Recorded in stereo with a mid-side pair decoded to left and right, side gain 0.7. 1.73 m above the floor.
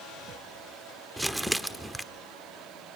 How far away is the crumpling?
About 1.1 m.